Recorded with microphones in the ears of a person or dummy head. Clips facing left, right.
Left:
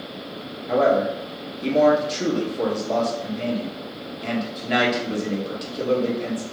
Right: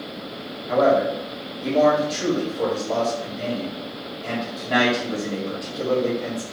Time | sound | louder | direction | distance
0.7 | a man speaking | right 1 dB | 45° left (ahead or behind) | 1.5 m